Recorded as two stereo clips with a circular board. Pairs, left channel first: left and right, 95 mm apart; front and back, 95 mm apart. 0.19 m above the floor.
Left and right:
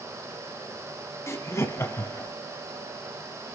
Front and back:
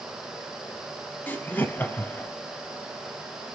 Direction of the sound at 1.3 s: 55° left.